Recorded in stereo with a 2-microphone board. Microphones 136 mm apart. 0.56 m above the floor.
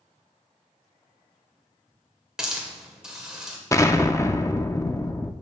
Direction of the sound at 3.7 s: 25° left (ahead or behind).